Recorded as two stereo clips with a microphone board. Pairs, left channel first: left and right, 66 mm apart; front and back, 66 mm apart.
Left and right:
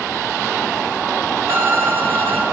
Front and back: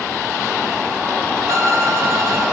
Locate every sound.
1.5 s a violin: 140° right, 2 m